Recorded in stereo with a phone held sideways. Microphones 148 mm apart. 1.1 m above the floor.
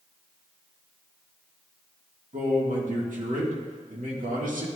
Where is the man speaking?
70° right (ahead or behind), 1.7 m.